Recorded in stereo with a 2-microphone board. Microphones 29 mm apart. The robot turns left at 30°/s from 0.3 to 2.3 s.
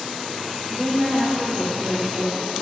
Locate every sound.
0.7 s a woman speaking: 30° right, 6 m; by 2.4 s 80° right, 6 m